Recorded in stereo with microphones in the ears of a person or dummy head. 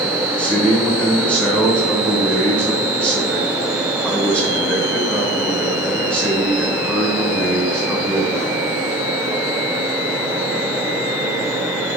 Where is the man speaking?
5° left (ahead or behind), 1.4 m.